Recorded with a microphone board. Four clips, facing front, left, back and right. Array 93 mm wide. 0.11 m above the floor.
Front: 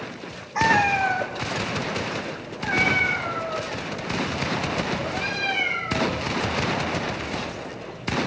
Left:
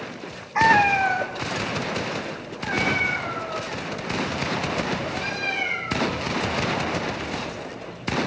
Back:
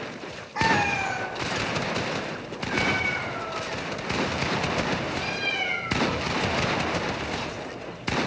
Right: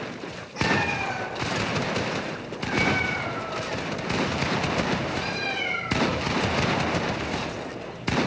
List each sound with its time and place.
0.6 s a cat meowing: 75° left, 1.2 m; by 6.3 s 10° left, 6 m